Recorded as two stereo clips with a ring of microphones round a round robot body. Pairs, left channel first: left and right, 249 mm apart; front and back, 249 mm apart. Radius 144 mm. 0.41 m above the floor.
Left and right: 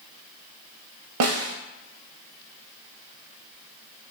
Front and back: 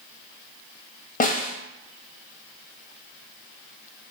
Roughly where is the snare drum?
Ahead right.